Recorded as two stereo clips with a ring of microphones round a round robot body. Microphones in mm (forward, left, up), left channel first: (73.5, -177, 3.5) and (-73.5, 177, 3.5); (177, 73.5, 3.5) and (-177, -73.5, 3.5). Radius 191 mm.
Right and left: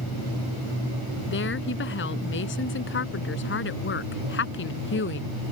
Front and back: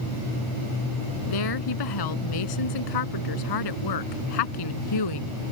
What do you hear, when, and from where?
1.3 s a woman speaking: 5° right